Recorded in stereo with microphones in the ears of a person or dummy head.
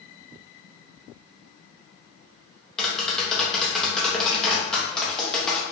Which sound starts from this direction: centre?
Tapping, at 2.8 s.